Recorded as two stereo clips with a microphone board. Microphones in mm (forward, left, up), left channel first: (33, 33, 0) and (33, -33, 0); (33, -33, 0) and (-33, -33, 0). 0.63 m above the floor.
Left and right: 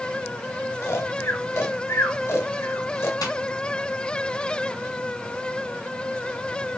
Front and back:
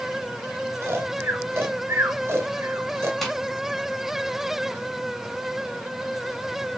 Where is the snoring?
130° left, 1.5 m.